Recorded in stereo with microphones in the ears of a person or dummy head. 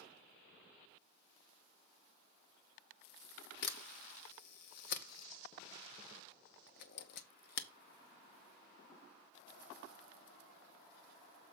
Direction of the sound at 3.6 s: 60° left (ahead or behind).